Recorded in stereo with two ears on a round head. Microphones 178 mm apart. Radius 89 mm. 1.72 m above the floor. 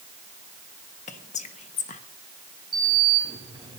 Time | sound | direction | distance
1.1 | whispering | 35° left (ahead or behind) | 1.3 m
2.7 | a sliding door | 25° right (ahead or behind) | 8 m